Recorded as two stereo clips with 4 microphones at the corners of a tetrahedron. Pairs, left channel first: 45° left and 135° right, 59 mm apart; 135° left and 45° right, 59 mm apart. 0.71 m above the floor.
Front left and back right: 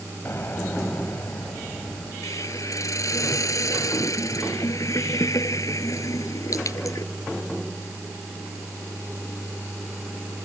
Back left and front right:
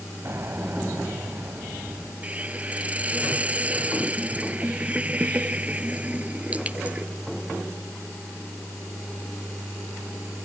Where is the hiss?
20° left.